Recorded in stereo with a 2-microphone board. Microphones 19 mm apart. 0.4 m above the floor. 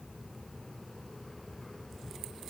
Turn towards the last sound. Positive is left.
No sound to turn to.